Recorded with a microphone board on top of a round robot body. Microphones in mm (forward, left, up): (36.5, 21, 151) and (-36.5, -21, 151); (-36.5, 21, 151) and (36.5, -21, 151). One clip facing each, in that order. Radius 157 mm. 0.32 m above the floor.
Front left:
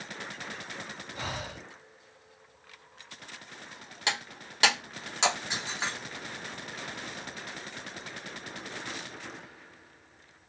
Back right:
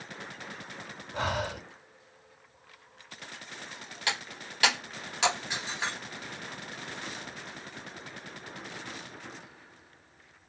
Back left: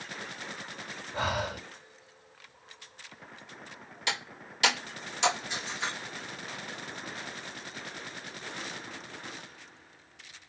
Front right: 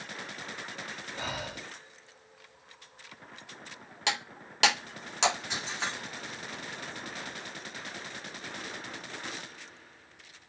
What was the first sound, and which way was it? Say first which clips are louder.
Breathing: back right 8 dB, back left 8 dB; 175° left.